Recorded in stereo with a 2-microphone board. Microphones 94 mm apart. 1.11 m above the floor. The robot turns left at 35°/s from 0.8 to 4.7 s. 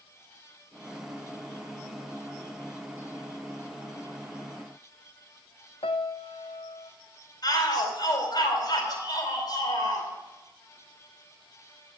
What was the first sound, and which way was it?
A piano, 75° left (ahead or behind).